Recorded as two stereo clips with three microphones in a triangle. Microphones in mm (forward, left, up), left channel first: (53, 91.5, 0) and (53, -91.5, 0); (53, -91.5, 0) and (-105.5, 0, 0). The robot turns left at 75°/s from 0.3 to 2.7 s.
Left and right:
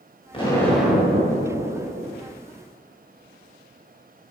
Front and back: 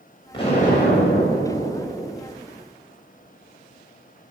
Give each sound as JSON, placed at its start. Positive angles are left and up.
{"t": 0.3, "sound": "an explosion", "azimuth_deg": 30, "distance_m": 3.5}